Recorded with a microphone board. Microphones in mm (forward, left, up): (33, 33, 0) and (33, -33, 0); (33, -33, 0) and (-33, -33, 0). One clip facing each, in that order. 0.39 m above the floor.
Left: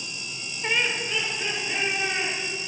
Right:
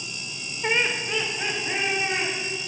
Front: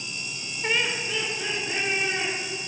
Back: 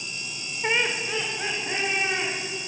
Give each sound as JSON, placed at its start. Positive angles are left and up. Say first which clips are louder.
{"t": 0.6, "sound": "laughter", "louder": "right 2 dB, back 2 dB", "azimuth_deg": -135, "distance_m": 0.8}